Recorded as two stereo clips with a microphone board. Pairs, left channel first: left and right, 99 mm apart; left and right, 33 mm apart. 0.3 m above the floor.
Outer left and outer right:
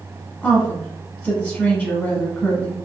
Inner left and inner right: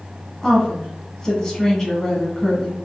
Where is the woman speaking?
20° left (ahead or behind), 1.2 m.